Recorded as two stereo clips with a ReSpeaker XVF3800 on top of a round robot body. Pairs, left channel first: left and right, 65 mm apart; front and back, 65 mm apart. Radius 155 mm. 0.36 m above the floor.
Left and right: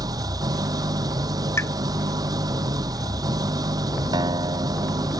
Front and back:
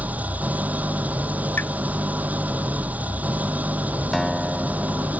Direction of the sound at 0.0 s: 115° right.